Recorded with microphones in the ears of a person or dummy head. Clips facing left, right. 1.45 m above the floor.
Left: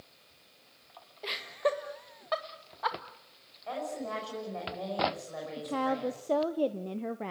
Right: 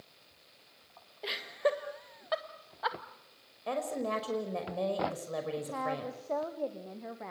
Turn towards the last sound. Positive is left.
turn(degrees=45)  # may be behind; listen again after turning